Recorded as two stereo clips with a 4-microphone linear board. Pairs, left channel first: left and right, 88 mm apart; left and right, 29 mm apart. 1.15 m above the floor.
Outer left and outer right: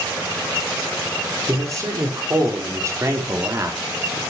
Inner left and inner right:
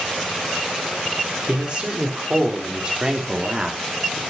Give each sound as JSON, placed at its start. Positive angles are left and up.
{"t": 1.5, "sound": "a man speaking", "side_deg": -40, "distance_m": 4.0}